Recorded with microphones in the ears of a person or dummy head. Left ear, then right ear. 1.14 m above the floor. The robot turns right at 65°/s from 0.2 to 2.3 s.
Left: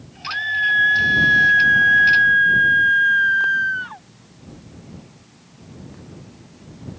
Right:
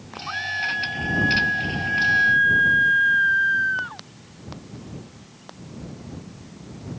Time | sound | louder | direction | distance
0.3 | a scream | left 6 dB | 20° left | ?